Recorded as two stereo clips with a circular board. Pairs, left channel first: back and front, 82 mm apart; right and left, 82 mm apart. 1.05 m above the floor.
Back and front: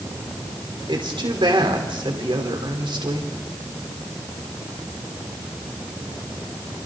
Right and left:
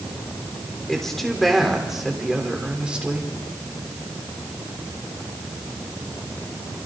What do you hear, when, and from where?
0.9 s a woman speaking: 5° right, 3.5 m; by 3.3 s 15° left, 3.5 m